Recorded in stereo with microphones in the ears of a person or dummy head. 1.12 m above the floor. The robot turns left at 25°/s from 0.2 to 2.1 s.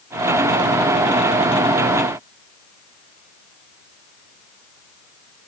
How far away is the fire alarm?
I don't hear a fire alarm.